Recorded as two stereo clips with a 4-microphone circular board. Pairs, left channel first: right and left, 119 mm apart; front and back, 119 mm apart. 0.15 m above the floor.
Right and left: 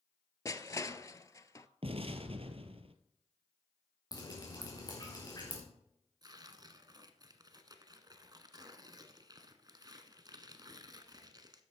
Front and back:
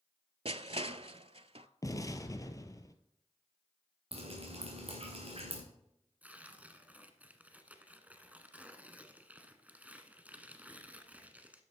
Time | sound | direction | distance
0.5 | crushing | 150° right | 0.5 m
1.8 | an explosion | 60° left | 0.9 m
4.1 | dripping | 145° right | 3.5 m
6.2 | tearing paper | 110° left | 1.1 m